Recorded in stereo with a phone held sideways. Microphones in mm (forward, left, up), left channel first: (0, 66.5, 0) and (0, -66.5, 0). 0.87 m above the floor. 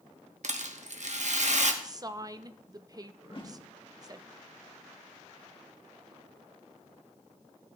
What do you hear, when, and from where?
0.4 s a rattle: 65° right (ahead or behind), 1.0 m
1.8 s a woman speaking: 30° right (ahead or behind), 0.6 m
3.2 s a whoosh: 40° left (ahead or behind), 1.7 m